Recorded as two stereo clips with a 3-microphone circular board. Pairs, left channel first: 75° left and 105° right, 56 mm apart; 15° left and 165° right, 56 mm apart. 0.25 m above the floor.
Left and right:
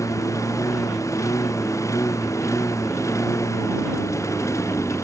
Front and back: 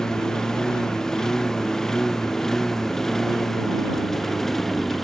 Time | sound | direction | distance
0.0 | a lawn mower | 95° left | ?